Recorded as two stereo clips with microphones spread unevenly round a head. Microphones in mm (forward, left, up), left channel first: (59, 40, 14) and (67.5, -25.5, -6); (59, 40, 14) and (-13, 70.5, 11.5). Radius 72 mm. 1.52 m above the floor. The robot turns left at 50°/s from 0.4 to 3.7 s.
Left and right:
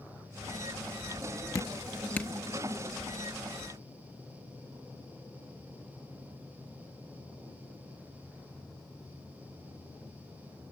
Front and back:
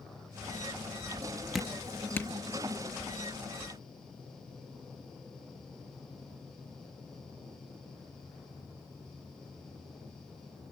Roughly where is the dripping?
Left.